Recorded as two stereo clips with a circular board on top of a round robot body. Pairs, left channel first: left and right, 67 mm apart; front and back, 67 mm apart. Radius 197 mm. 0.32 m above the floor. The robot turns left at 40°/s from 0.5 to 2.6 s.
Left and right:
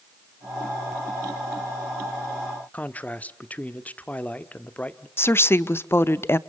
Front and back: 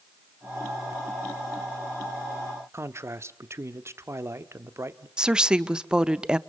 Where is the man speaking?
150° left, 1.2 m.